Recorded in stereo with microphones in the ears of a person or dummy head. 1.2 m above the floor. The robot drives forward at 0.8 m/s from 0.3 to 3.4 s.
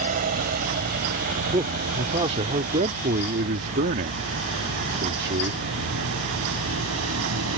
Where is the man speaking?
30° right (ahead or behind); by 5.6 s 55° right (ahead or behind).